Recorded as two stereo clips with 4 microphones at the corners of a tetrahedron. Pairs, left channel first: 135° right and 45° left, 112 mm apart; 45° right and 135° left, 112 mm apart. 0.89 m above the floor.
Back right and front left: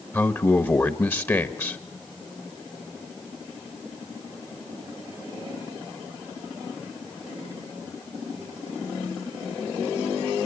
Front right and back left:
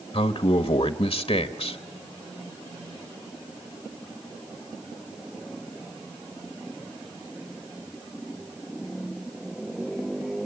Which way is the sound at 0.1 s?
70° right.